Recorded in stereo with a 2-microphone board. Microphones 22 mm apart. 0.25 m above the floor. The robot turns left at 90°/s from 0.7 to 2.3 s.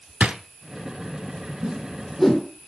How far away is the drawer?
About 1.0 m.